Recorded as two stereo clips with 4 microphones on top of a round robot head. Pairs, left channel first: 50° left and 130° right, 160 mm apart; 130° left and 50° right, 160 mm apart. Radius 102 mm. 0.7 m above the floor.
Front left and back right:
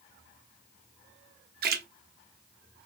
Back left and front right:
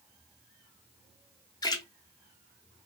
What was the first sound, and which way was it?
A splash, 160° right.